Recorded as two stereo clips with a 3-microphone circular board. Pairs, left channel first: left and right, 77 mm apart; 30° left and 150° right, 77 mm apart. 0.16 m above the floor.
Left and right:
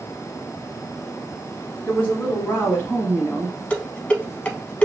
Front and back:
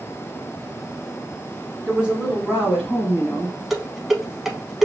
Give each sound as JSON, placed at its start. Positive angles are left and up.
{"t": 1.9, "sound": "a woman speaking", "azimuth_deg": 140, "distance_m": 1.7}
{"t": 3.7, "sound": "dishes clattering", "azimuth_deg": 130, "distance_m": 0.7}